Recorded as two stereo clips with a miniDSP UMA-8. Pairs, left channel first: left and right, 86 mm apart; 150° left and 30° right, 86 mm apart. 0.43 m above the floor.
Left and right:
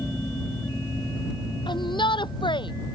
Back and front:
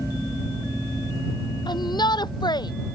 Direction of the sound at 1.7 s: 115° left.